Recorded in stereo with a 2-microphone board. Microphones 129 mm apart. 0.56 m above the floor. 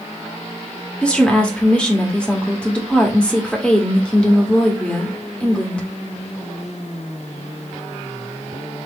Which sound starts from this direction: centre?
A woman speaking, at 1.0 s.